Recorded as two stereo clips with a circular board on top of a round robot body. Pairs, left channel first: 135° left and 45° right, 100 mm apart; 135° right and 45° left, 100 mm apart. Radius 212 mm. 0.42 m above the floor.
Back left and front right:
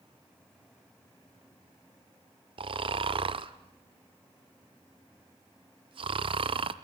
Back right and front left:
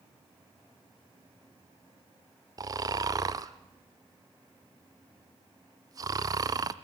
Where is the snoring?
10° right, 0.5 m.